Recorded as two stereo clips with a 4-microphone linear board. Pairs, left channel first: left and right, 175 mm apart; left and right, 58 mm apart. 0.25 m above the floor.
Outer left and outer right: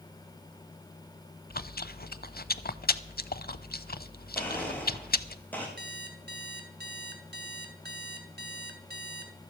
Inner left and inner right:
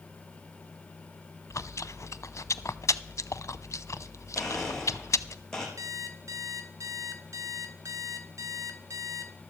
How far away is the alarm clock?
About 1.4 m.